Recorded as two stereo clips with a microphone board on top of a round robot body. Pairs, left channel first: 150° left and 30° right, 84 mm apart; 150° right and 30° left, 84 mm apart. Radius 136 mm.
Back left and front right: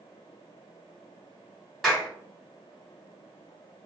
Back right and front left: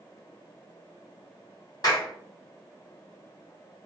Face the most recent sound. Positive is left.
turn(degrees=-120)